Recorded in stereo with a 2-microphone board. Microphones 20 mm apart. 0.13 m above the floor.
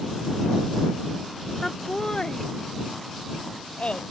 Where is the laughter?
25° left (ahead or behind); by 4.1 s 55° left (ahead or behind).